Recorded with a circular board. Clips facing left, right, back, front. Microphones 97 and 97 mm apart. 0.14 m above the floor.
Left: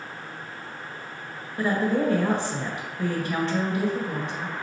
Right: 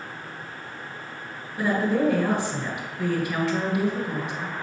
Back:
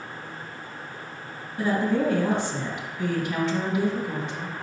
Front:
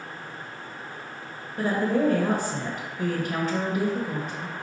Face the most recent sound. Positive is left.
turn(degrees=-10)